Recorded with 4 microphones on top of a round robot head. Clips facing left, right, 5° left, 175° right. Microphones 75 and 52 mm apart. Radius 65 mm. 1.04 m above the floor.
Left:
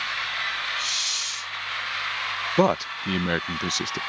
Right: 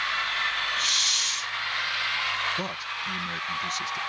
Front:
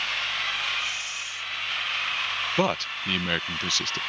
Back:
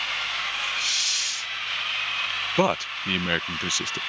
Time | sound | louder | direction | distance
0.8 | a hiss | right 2 dB, back 2 dB | 145° right | ?
2.6 | a man speaking | left 11 dB, back 4 dB | 110° left | ?